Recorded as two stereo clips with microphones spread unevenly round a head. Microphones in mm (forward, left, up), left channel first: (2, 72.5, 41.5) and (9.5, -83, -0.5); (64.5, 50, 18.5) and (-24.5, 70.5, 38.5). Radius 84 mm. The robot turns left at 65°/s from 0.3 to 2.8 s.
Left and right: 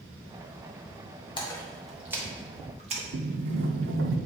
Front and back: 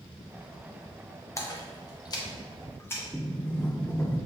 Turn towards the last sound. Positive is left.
turn(degrees=-100)